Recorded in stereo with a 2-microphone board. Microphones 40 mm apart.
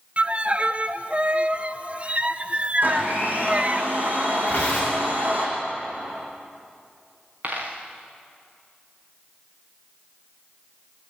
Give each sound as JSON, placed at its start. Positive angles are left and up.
{"t": 0.2, "sound": "a violin", "side_deg": -35, "distance_m": 0.8}
{"t": 2.8, "sound": "a blender", "side_deg": -45, "distance_m": 6.0}
{"t": 4.5, "sound": "tearing paper", "side_deg": 35, "distance_m": 9.0}
{"t": 7.4, "sound": "a dropped coin", "side_deg": -40, "distance_m": 5.0}